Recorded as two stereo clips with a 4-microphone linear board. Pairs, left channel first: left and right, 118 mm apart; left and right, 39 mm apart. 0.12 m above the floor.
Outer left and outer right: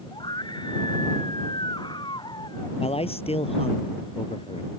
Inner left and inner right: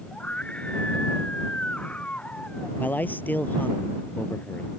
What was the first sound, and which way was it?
A scream, 40° left (ahead or behind).